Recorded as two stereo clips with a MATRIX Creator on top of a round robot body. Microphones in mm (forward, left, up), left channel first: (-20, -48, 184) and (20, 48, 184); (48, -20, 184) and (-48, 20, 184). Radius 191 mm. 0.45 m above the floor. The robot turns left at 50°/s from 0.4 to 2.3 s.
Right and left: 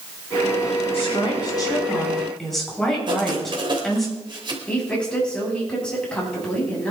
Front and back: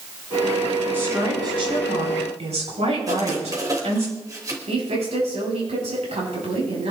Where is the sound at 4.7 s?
170° left, 9 m.